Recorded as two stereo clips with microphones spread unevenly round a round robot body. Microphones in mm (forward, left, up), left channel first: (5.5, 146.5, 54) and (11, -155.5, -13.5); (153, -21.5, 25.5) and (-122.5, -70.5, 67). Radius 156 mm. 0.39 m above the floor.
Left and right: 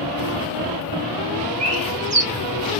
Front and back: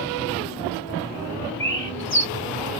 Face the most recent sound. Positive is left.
turn(degrees=-30)